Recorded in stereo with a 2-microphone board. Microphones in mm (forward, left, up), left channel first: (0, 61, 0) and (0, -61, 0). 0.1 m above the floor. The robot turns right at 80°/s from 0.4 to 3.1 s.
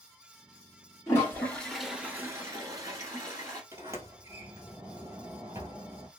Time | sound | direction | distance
1.1 | a toilet flushing | 125° left | 1.4 m
3.7 | a sliding door | 25° right (ahead or behind) | 1.2 m